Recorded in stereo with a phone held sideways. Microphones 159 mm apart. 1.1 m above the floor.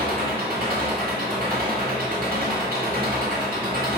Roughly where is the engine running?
Right.